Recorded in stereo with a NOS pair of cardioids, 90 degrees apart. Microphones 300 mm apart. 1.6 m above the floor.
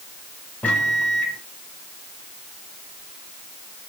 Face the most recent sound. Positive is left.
turn(degrees=5)